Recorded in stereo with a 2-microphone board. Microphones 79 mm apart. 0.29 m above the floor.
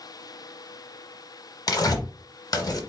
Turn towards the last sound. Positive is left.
turn(degrees=55)  # may be behind; listen again after turning